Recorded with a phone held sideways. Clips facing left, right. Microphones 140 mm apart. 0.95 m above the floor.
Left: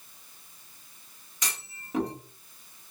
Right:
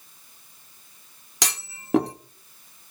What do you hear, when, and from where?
1.4 s a clunk: 70° right (ahead or behind), 1.1 m